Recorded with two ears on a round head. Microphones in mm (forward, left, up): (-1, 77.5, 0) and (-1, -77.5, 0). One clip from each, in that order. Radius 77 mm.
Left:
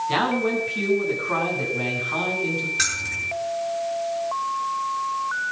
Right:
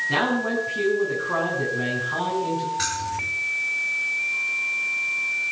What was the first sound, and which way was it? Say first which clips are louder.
A man speaking: left 1 dB; 75° left (ahead or behind).